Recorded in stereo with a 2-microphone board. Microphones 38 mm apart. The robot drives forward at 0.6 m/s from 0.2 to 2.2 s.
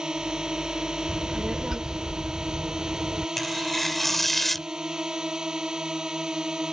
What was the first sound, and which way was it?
A drone, 20° right (ahead or behind).